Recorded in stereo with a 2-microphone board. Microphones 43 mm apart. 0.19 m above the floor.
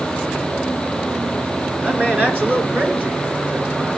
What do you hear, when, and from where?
1.8 s a man speaking: 40° right (ahead or behind), 3 m; by 3.9 s 35° right (ahead or behind), 4 m